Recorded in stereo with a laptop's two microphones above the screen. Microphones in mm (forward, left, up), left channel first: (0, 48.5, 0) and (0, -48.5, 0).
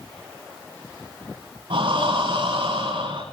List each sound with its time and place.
1.7 s breathing: 75° right (ahead or behind), 7 m